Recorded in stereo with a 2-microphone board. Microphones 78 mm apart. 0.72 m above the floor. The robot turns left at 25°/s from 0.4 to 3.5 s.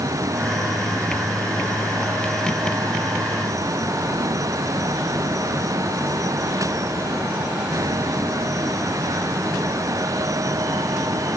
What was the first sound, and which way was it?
Only background noise.